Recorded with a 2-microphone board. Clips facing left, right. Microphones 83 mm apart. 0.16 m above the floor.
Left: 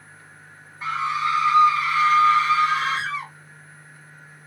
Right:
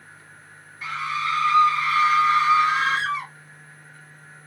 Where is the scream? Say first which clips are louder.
Left 3 dB; 30° left (ahead or behind), 1.3 m; by 3.3 s 35° right (ahead or behind), 1.4 m.